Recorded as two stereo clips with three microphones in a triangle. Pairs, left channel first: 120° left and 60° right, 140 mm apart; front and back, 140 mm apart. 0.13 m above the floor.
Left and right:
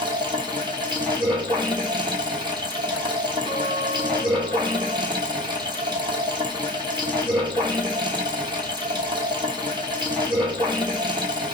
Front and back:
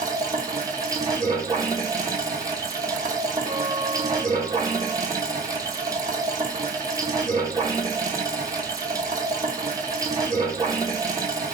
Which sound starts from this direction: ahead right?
A guitar, at 3.5 s.